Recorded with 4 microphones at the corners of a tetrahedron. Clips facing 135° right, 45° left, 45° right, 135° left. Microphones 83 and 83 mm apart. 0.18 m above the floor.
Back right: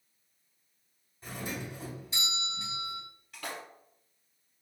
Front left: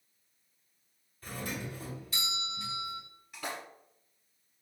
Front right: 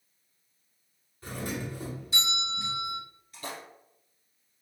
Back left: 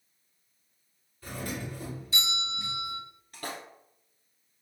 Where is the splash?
125° left, 1.4 m.